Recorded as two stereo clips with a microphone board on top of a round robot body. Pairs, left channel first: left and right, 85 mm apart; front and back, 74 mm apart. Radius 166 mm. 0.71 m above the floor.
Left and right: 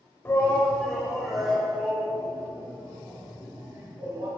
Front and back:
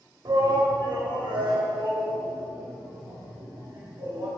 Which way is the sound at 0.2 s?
155° left.